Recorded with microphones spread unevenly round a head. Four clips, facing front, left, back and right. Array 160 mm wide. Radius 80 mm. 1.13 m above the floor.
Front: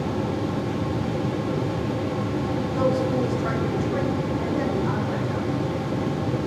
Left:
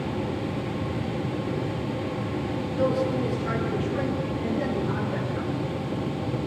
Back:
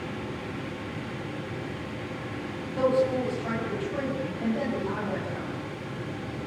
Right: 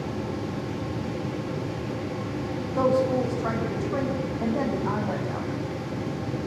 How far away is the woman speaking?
About 8 m.